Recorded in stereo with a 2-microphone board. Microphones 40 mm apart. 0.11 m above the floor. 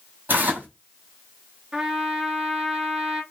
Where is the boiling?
No boiling in this recording.